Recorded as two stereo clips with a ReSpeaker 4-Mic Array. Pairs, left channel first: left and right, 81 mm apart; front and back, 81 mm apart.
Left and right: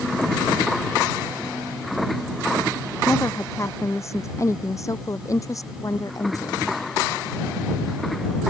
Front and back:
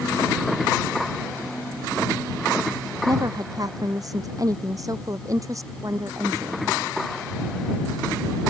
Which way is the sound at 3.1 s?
145° left.